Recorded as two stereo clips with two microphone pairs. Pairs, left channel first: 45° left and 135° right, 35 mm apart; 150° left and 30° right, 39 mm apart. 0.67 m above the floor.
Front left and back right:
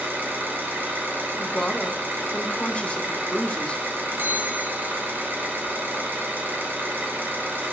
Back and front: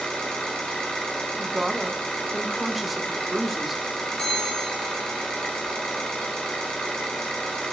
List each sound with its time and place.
0.0 s an engine running: 140° right, 2 m
1.4 s a woman speaking: 55° left, 0.9 m
4.2 s a bell: 140° right, 1.5 m